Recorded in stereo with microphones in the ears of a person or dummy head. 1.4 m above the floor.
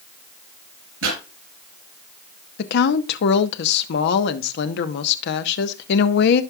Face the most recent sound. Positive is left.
turn(degrees=60)  # may be behind; listen again after turning